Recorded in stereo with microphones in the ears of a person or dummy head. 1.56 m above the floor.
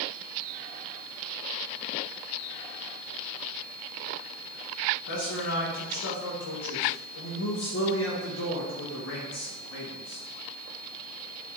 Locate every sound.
5.1 s a man speaking: 65° left (ahead or behind), 1.6 m